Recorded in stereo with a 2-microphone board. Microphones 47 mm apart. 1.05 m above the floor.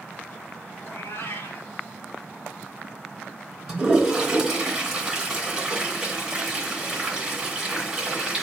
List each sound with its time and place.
0.8 s a cat meowing: 60° left (ahead or behind), 1.2 m
3.7 s a toilet flushing: 15° right (ahead or behind), 2.5 m